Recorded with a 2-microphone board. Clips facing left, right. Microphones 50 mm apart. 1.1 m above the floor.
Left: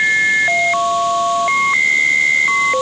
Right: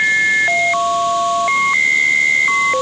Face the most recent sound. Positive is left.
No sound to turn to.